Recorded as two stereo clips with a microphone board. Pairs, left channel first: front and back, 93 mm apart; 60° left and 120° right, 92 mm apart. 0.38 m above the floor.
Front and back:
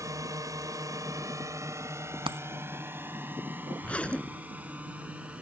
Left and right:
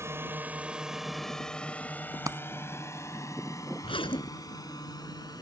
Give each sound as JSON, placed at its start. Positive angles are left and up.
{"t": 0.0, "sound": "a drone", "azimuth_deg": -160}
{"t": 2.3, "sound": "a dropped coin", "azimuth_deg": -170}
{"t": 3.8, "sound": "a zipper", "azimuth_deg": 75}